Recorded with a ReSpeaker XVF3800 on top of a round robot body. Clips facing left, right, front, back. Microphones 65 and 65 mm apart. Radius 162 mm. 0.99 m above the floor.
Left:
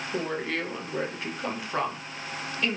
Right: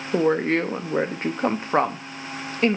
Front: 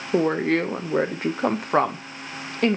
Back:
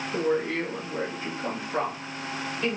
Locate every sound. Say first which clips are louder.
0.1 s a woman speaking: right 11 dB, front 6 dB; 35° right, 0.7 m